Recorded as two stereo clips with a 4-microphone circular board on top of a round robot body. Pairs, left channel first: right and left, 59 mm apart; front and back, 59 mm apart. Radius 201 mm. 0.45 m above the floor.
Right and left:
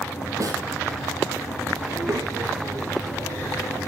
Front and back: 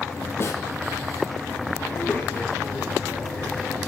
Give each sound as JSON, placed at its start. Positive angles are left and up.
{"t": 0.4, "sound": "a snare drum", "azimuth_deg": 55, "distance_m": 5.0}
{"t": 1.9, "sound": "a child speaking", "azimuth_deg": 60, "distance_m": 8.0}